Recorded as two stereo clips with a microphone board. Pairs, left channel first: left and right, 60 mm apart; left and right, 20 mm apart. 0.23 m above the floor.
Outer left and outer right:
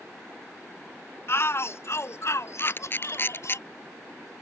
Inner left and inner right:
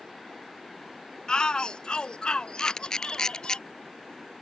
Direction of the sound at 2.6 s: 40° left (ahead or behind).